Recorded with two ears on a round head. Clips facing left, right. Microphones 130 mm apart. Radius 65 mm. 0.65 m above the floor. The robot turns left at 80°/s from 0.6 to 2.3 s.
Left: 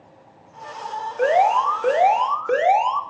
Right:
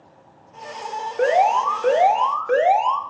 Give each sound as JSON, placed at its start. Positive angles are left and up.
{"t": 1.2, "sound": "an alarm", "azimuth_deg": -125, "distance_m": 2.5}